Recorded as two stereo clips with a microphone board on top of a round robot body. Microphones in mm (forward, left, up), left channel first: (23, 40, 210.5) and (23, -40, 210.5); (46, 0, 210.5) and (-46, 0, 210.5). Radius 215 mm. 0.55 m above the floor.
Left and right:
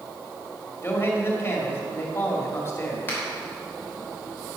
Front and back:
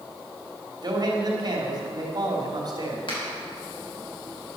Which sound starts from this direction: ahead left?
A finger snap, at 3.1 s.